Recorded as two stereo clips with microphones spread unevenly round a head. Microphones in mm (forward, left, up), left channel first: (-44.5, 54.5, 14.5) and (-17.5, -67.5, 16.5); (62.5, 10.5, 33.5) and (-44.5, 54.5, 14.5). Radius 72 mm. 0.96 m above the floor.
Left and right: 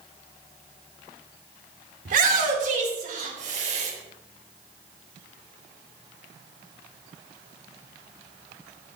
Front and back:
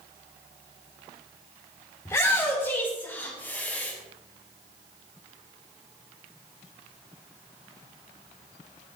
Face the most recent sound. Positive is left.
turn(degrees=-100)